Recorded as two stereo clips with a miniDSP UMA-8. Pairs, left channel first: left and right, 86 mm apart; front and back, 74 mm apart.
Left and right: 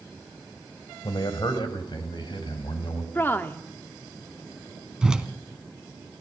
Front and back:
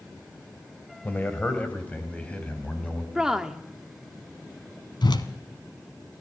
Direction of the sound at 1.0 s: 65° left.